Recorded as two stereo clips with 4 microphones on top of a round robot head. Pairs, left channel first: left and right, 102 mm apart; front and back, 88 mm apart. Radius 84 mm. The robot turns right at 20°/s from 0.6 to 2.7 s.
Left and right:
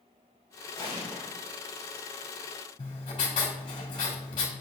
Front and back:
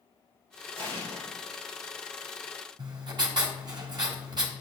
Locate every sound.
0.8 s an explosion: 160° left, 3.5 m; by 1.3 s 170° left, 3.5 m
2.8 s writing: 150° left, 1.7 m